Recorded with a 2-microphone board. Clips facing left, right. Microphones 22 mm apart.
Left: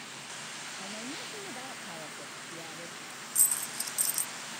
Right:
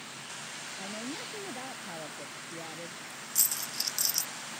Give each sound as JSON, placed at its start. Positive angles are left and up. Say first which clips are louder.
{"t": 0.8, "sound": "a woman speaking", "louder": "right 3 dB", "side_deg": -10}
{"t": 3.4, "sound": "a dropped coin", "louder": "even", "side_deg": -45}